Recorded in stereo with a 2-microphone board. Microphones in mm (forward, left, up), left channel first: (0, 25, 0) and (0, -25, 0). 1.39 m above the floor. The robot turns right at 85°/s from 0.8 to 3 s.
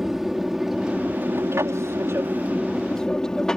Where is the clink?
No clink in this recording.